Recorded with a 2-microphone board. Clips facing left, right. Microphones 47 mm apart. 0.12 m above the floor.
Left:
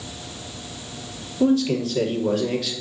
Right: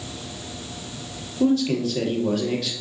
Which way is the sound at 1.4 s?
Centre (ahead or behind).